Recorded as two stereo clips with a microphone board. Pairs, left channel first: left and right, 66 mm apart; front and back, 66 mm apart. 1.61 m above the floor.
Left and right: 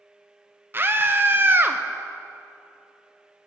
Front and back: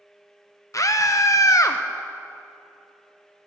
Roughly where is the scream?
Ahead right.